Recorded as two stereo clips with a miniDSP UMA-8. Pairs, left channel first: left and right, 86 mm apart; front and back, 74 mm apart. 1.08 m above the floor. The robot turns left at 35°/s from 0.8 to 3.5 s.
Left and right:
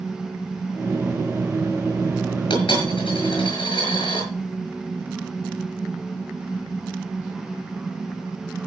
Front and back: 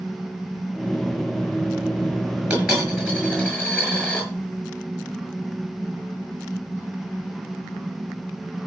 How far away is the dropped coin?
About 6.5 m.